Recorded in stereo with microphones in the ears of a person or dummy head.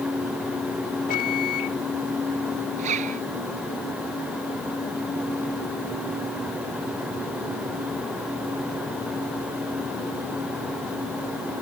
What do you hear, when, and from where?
1.1 s a microwave: 35° left (ahead or behind)
2.8 s a zipper: 35° right (ahead or behind)